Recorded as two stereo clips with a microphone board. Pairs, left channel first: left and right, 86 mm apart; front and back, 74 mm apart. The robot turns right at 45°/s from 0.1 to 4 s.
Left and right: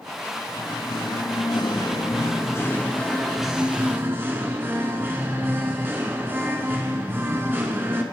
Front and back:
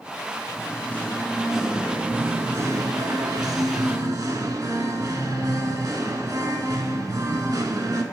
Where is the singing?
50° left, 0.7 m; by 8.0 s 155° right, 0.7 m.